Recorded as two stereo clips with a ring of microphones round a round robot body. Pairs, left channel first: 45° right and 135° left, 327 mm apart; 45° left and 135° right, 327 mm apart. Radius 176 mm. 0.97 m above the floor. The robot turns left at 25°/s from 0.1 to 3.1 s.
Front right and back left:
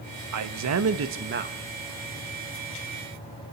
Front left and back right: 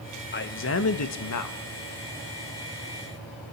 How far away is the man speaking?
About 1.5 m.